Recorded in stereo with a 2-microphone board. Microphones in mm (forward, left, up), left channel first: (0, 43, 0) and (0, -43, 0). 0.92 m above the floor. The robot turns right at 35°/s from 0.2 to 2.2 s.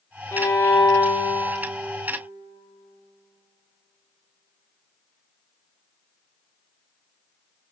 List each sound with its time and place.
0.3 s a violin: 30° left, 0.6 m; by 1.6 s 75° left, 0.6 m